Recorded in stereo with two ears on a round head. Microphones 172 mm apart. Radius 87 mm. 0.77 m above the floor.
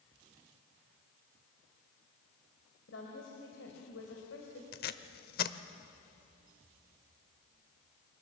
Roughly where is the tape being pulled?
Left.